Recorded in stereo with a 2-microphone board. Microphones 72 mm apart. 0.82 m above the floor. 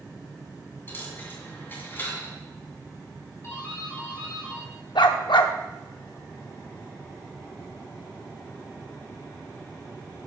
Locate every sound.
0.9 s a dropped coin: 30° left (ahead or behind), 2 m
3.4 s a doorbell: 35° left (ahead or behind), 2 m
5.0 s a dog barking: 80° left, 0.7 m